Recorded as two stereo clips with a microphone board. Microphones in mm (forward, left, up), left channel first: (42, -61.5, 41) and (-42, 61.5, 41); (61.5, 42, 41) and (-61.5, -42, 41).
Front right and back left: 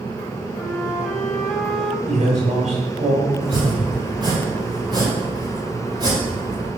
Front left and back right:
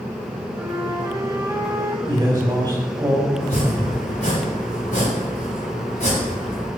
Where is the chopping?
65° left, 6 m.